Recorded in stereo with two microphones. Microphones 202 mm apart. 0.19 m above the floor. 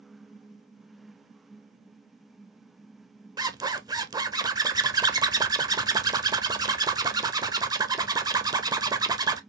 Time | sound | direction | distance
3.4 | a zipper | 20° right (ahead or behind) | 0.5 m